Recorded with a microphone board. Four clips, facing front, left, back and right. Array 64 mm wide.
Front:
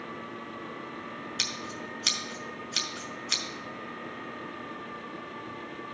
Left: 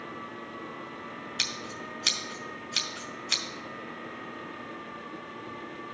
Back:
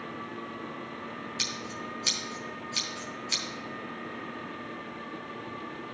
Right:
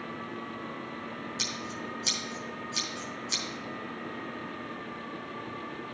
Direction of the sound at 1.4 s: 60° left.